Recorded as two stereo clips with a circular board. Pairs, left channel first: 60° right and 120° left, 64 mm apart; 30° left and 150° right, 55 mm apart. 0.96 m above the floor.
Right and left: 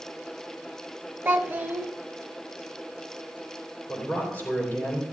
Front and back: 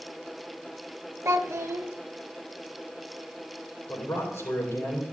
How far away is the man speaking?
About 4 m.